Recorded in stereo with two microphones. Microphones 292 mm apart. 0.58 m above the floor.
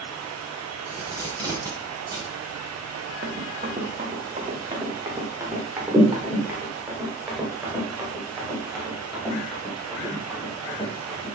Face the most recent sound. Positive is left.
turn(degrees=5)  # may be behind; listen again after turning